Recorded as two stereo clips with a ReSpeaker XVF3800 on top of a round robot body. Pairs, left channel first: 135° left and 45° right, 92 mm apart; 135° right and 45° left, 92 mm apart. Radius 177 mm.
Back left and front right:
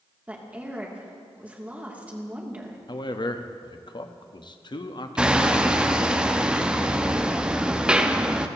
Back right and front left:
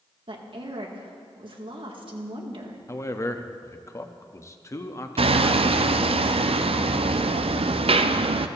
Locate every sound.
0.3 s a woman speaking: 30° left, 2.5 m
2.9 s a man speaking: 170° left, 1.3 m
5.2 s hammering: 35° left, 0.7 m